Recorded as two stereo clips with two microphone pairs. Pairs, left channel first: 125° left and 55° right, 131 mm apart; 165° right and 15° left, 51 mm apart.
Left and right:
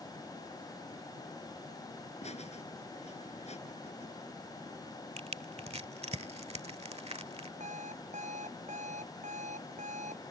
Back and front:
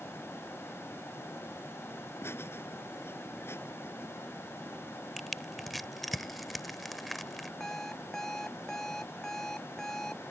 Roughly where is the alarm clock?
Right.